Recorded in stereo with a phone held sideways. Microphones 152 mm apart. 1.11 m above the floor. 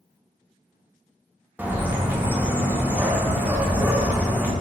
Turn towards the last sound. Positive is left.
turn(degrees=-10)  # may be behind; listen again after turning